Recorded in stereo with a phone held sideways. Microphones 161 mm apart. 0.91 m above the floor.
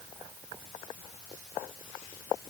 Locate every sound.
Only background noise.